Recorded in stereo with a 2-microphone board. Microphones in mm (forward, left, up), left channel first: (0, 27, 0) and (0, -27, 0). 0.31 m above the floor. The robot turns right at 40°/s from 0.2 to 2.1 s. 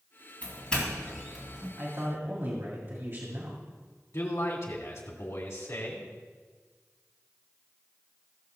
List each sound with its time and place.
0.4 s a doorbell: 30° left (ahead or behind), 3 m; by 1.7 s 15° right (ahead or behind), 3 m
1.8 s a man speaking: 40° right (ahead or behind), 1.8 m; by 3.6 s 50° right (ahead or behind), 1.8 m
4.1 s a man speaking: 65° left (ahead or behind), 2 m